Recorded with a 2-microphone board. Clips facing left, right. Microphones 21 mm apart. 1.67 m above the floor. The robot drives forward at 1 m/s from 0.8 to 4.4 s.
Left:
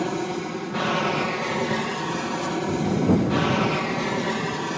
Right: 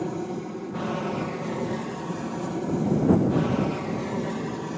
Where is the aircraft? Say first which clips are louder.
Left 4 dB; 55° left (ahead or behind).